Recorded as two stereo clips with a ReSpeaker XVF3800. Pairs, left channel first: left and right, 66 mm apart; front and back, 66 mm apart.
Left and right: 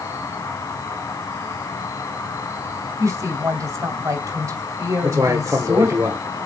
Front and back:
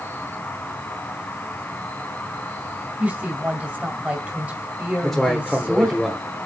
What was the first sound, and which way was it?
An insect, 60° left.